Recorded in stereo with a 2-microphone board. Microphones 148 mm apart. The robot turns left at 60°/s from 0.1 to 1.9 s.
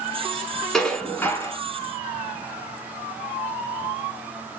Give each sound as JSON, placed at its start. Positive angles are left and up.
{"t": 0.7, "sound": "dishes clattering", "side_deg": 5, "distance_m": 0.8}